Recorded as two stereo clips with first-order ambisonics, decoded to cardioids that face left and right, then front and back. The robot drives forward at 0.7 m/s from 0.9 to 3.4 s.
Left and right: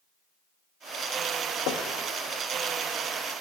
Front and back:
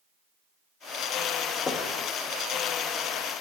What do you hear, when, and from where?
1.7 s knocking: 65° left, 0.5 m; by 2.0 s 90° left, 0.5 m